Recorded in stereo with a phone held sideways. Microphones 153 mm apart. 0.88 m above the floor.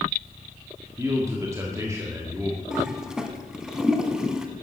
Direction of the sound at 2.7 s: 5° right (ahead or behind).